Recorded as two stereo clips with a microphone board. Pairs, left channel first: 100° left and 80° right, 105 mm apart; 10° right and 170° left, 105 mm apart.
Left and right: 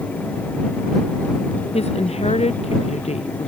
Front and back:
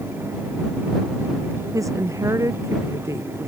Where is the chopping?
No chopping in this recording.